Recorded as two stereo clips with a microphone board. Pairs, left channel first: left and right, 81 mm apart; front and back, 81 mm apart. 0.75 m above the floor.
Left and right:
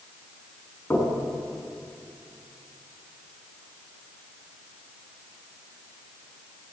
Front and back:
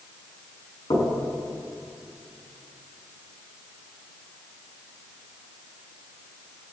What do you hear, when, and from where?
0.9 s knocking: 25° left, 7 m